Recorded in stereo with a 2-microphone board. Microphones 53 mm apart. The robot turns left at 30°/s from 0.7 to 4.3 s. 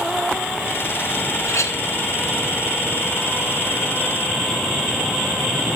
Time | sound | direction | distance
1.4 | a clink | 70° left (ahead or behind) | 0.7 m